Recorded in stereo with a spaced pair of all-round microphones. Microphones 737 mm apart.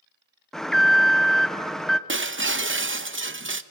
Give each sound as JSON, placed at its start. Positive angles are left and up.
{"t": 0.5, "sound": "an alarm", "side_deg": 0, "distance_m": 0.6}
{"t": 2.1, "sound": "breaking glass", "side_deg": -20, "distance_m": 0.5}